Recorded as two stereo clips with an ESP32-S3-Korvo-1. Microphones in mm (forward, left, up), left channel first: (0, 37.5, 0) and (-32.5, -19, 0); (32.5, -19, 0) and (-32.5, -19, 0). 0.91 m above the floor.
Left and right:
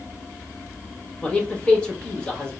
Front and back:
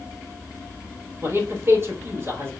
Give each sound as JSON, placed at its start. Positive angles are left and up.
{"t": 1.2, "sound": "a man speaking", "azimuth_deg": 135, "distance_m": 1.7}